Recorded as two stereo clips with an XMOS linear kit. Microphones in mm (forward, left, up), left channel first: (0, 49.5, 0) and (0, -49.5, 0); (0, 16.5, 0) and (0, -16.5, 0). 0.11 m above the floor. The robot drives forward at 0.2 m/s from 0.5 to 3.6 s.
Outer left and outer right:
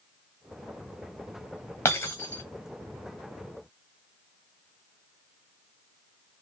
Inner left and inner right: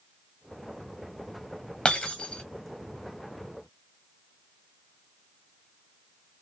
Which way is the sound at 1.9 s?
20° left (ahead or behind).